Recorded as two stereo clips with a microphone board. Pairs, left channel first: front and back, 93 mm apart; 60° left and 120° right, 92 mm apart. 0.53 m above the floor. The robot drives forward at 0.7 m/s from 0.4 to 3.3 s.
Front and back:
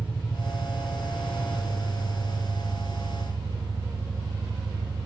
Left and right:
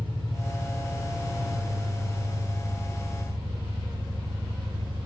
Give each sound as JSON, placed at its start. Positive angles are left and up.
{"t": 0.0, "sound": "an engine running", "azimuth_deg": -105, "distance_m": 3.5}